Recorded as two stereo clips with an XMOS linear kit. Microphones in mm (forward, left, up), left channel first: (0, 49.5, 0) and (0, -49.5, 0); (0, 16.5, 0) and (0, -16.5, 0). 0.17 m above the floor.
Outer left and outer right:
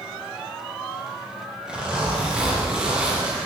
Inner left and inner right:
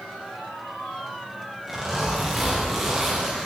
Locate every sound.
1.7 s a zipper: 10° right (ahead or behind), 3 m